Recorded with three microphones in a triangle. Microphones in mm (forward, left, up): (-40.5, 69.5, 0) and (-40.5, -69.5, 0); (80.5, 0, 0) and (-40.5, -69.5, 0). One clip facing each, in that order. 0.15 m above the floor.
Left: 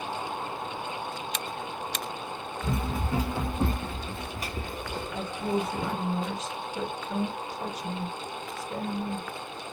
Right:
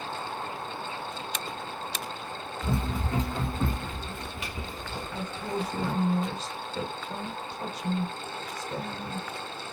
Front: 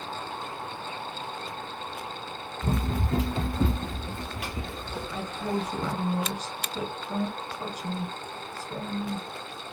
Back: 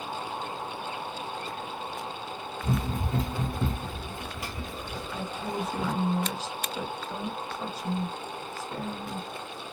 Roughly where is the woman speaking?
Ahead right.